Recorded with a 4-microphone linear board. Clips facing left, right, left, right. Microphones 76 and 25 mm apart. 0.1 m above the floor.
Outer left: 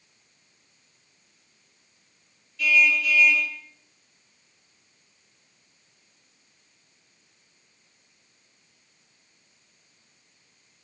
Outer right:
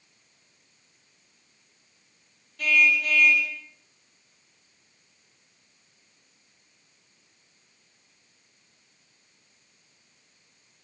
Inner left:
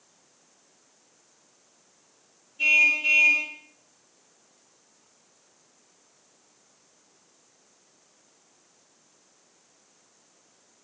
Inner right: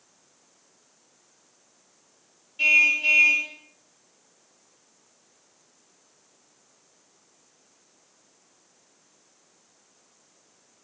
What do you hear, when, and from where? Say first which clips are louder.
2.6 s a car horn: outer left 1 dB, inner right 1 dB; 50° right (ahead or behind), 9.5 m